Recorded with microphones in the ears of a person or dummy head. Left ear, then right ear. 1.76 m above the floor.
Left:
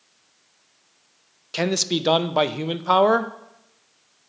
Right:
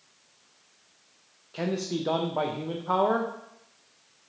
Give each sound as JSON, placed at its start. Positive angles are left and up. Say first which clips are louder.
{"t": 1.5, "sound": "a man speaking", "louder": "left 8 dB", "side_deg": 80, "distance_m": 0.6}